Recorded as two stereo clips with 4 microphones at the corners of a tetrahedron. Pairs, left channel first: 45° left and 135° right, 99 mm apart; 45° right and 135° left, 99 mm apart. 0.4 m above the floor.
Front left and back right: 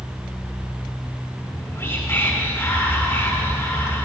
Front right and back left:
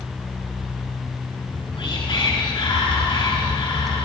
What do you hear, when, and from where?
1.4 s whispering: 15° right, 4.5 m